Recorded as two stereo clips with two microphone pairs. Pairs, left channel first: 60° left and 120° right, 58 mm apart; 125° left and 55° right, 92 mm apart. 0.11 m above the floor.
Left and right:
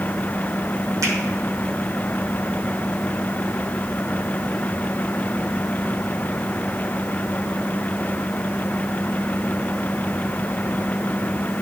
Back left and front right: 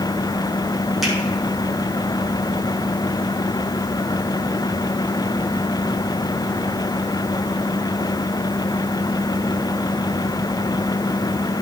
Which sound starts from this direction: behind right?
A finger snap, at 1.0 s.